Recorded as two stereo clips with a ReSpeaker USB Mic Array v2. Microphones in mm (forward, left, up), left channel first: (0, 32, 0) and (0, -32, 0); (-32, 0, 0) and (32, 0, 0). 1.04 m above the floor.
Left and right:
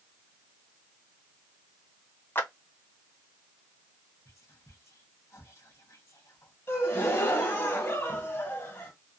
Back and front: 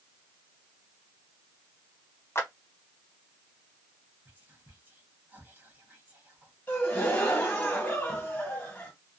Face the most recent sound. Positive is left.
turn(degrees=125)